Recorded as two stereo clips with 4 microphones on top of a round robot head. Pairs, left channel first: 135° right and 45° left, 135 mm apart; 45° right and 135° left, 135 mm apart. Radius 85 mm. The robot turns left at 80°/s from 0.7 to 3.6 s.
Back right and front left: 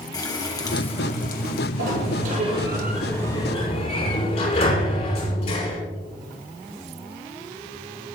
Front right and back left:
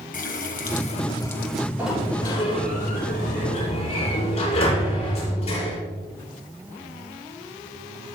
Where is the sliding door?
55° left, 7 m; by 5.8 s 90° right, 7 m.